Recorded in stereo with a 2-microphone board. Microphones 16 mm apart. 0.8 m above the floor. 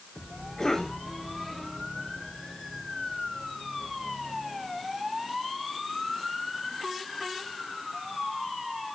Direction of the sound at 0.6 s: 40° left (ahead or behind).